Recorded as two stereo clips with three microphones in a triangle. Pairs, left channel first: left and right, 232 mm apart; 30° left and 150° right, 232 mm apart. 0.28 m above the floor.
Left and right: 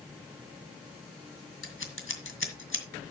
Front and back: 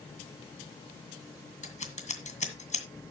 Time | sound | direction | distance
1.6 | scissors | 85° left | 2.0 m